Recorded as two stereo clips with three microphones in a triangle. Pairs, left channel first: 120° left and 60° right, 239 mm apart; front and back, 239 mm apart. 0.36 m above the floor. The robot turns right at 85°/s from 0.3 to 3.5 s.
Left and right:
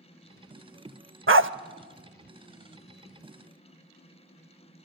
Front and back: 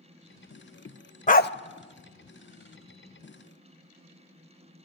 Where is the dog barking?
55° right, 0.5 m; by 1.5 s 35° right, 0.5 m.